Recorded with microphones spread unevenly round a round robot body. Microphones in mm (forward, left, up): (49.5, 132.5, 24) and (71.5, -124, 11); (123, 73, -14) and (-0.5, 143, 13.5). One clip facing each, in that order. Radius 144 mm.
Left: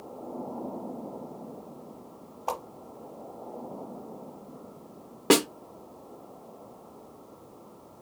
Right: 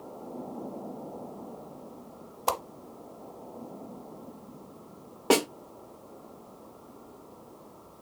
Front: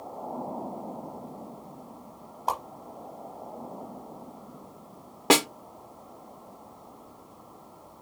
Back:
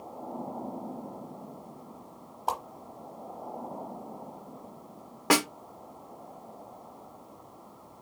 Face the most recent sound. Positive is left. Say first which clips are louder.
# left 2 dB, front 3 dB
turn(degrees=35)